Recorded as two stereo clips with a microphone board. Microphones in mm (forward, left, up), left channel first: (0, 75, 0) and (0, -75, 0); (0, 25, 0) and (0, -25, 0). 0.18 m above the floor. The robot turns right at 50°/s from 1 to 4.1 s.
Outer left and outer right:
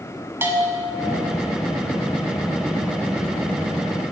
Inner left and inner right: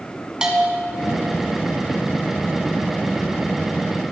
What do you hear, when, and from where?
0.4 s a bell: 15° right (ahead or behind), 1.9 m